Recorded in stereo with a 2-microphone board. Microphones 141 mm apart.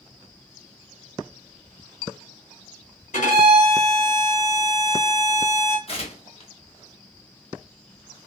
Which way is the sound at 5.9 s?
45° left (ahead or behind).